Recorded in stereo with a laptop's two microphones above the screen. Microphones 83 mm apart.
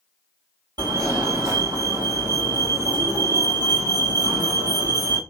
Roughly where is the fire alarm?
Right.